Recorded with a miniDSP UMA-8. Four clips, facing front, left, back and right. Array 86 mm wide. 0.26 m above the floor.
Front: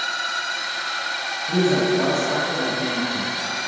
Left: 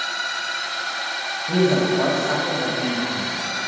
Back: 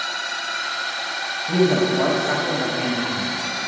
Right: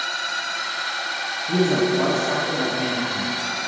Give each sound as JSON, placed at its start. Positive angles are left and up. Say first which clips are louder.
{"t": 1.5, "sound": "a man speaking", "louder": "left 1 dB, back 1 dB", "azimuth_deg": 115, "distance_m": 1.3}